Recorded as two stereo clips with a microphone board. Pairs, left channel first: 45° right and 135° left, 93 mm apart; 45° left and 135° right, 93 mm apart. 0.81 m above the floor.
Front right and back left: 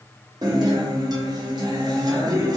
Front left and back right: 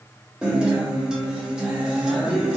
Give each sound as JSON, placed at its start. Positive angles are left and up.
{"t": 0.4, "sound": "a guitar", "azimuth_deg": 145, "distance_m": 0.8}